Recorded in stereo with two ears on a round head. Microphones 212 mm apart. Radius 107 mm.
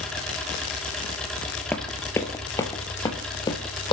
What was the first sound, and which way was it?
An engine running, 5° left (ahead or behind).